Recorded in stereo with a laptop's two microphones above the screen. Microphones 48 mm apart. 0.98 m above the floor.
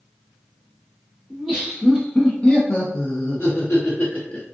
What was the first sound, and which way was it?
Laughter, 5° left (ahead or behind).